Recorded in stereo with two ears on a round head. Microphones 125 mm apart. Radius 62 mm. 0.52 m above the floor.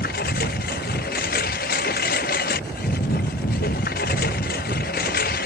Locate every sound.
0.0 s a lawn mower: 70° left (ahead or behind)